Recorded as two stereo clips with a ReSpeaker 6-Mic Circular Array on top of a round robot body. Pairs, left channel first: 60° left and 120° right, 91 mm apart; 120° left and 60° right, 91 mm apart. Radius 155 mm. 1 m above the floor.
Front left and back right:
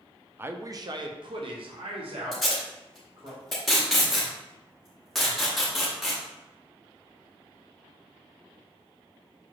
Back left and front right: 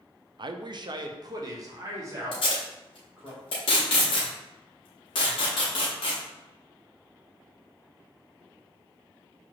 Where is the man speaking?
60° right, 0.5 m; by 3.3 s 125° right, 1.7 m.